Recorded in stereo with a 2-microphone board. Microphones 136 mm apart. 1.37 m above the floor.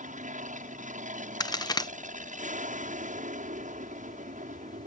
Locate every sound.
0.0 s an aircraft: 70° right (ahead or behind)
1.4 s a crack: 30° left (ahead or behind)